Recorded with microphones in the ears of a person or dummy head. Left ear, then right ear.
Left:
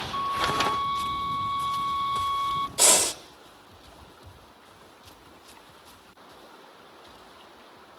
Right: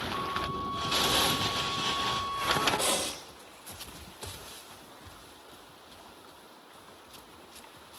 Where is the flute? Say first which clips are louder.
Left 10 dB; 60° left (ahead or behind), 1.8 m.